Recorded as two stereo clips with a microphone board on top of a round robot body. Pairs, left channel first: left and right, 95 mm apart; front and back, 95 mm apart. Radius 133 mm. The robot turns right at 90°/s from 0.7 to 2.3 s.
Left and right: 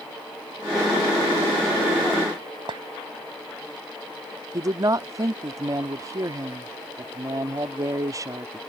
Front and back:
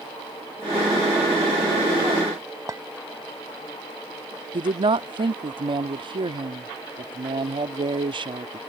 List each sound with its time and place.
2.7 s a clink: 125° right
4.5 s a woman speaking: 145° right